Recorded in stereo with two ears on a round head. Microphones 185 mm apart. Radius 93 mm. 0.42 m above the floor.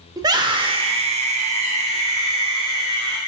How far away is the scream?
About 1.0 m.